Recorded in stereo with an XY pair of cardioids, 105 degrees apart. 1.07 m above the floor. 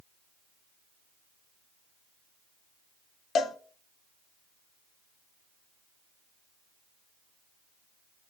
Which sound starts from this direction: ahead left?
A cowbell, at 3.4 s.